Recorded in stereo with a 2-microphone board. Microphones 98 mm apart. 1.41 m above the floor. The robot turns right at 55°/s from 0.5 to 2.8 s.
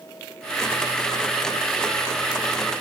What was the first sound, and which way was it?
Only background noise.